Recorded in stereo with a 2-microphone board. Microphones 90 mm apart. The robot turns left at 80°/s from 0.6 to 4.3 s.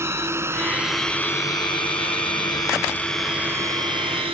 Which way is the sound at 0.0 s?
30° right (ahead or behind).